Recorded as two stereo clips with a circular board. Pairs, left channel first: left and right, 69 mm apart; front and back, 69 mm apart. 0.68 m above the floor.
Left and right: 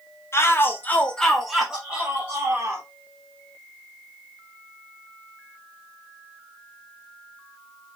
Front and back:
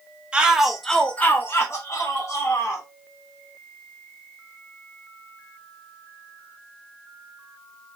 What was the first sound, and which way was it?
A shout, 110° left.